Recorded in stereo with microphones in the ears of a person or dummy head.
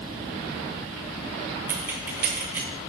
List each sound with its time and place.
1.7 s keys jangling: 15° right (ahead or behind), 0.5 m